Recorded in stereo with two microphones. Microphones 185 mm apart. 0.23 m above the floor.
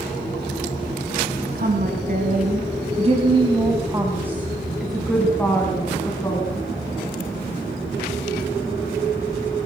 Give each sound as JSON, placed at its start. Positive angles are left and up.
{"t": 1.6, "sound": "a woman speaking", "side_deg": -55, "distance_m": 2.0}